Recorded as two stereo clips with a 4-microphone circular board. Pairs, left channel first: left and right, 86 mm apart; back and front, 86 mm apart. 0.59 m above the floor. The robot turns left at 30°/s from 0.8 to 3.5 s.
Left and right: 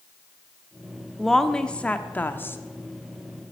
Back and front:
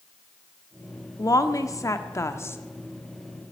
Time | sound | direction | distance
1.2 | a woman speaking | 175° left | 0.9 m